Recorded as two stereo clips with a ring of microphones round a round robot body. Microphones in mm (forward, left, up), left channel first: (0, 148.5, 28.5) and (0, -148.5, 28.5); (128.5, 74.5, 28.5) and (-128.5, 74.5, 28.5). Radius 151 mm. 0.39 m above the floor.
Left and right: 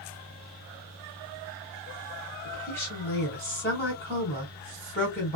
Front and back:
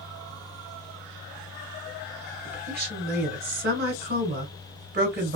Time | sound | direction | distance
2.5 | a woman speaking | 165° left | 1.7 m